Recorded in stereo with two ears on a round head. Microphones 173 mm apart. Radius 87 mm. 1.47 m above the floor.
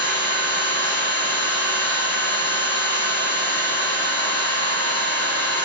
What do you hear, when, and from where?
0.0 s an engine running: 10° left (ahead or behind), 0.9 m